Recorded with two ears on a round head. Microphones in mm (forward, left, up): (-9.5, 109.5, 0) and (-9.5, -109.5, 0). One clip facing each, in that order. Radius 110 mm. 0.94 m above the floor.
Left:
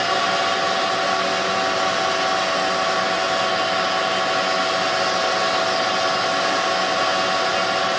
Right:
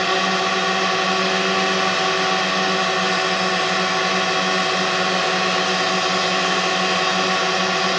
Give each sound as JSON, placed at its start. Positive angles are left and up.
{"t": 0.0, "sound": "a drone", "side_deg": -45}